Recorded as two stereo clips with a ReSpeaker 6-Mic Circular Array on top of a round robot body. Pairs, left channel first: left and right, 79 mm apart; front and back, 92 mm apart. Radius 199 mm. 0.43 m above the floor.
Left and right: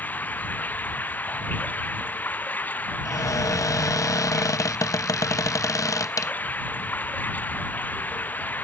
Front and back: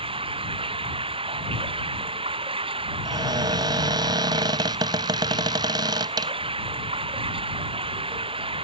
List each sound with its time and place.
0.0 s running water: 160° left
3.0 s a cupboard door: 135° left